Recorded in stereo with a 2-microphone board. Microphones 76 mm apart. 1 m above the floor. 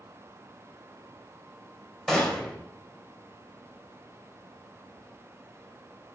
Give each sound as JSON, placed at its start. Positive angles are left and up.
{"t": 2.1, "sound": "a gunshot", "side_deg": 5, "distance_m": 3.0}